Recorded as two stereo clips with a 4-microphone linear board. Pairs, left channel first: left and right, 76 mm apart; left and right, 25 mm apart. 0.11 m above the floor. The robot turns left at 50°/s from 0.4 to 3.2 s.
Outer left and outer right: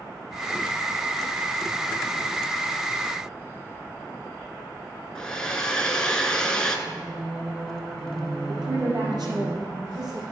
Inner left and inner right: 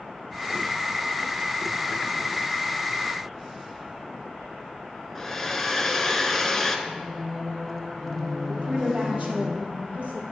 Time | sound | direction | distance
5.2 | a hair dryer | 10° left (ahead or behind) | 0.9 m
6.9 | singing | 5° left (ahead or behind) | 1.2 m
8.5 | a woman speaking | 60° right (ahead or behind) | 3 m